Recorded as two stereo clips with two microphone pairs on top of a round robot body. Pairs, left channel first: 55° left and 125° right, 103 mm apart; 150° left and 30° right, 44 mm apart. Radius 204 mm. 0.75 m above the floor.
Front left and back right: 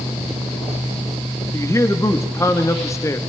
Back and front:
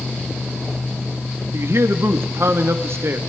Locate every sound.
1.5 s a man speaking: 10° right, 1.5 m